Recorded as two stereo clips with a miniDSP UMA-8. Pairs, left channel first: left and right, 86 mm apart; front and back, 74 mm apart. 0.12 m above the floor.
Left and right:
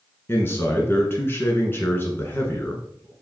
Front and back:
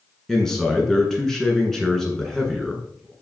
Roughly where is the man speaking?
Left.